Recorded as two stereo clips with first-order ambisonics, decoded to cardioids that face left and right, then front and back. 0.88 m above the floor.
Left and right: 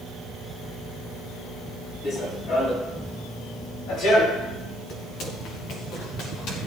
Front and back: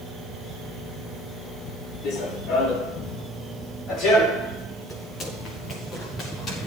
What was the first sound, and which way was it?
Running footsteps, 35° left.